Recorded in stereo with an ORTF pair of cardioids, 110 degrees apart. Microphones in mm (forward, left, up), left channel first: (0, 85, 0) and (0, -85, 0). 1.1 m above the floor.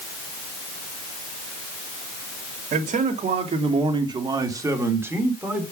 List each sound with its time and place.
2.7 s a man speaking: 55° right, 2.5 m; by 5.6 s 10° right, 3.5 m